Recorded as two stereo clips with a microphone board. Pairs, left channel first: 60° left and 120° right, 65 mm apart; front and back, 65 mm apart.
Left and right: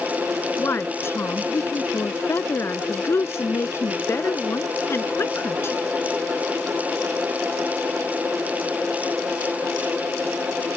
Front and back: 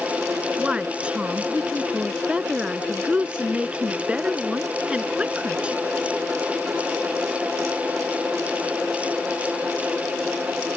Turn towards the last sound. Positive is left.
turn(degrees=105)